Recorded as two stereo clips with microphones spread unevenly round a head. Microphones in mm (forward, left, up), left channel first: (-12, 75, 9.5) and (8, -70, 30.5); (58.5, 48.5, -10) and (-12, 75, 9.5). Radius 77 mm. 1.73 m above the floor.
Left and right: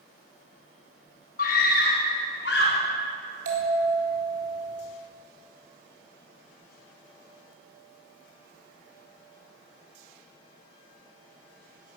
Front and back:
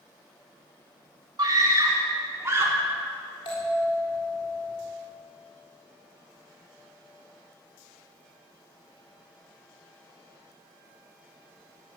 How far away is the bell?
About 4 m.